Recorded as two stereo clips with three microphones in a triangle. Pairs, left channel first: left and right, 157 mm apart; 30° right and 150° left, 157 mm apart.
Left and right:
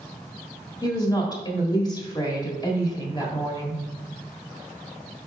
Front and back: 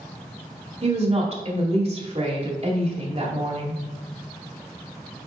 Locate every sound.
0.8 s a woman speaking: 140° left, 1.5 m